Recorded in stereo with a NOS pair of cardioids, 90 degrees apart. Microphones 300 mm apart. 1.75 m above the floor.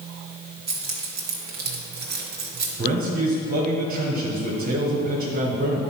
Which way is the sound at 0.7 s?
35° right.